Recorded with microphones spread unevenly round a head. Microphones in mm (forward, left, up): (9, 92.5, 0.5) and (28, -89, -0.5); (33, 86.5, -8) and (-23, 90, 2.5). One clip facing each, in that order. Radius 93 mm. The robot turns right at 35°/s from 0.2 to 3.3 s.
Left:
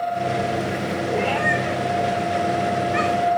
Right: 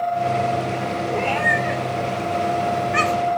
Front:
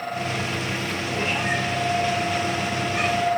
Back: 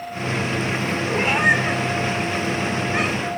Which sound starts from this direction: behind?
A cat meowing, at 1.1 s.